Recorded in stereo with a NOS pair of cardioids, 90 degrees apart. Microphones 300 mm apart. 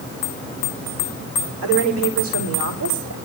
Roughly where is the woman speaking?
Ahead right.